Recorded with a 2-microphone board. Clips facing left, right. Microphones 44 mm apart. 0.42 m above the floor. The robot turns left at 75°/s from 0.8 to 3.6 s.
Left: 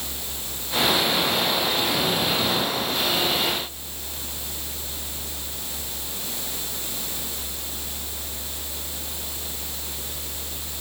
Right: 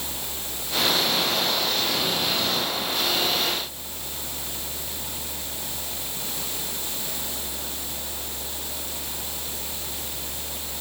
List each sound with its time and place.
Only background noise.